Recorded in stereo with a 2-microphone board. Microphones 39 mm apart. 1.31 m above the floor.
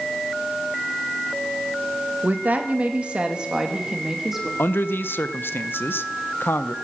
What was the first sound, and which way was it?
A woman speaking, 45° right (ahead or behind).